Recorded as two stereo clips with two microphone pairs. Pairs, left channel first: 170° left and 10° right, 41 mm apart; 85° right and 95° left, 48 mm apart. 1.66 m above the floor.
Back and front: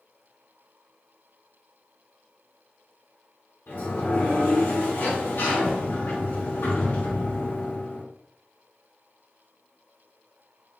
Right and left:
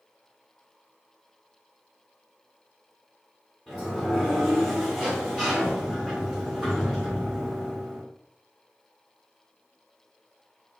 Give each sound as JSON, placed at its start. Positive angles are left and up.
{"t": 3.7, "sound": "a sliding door", "azimuth_deg": 180, "distance_m": 1.9}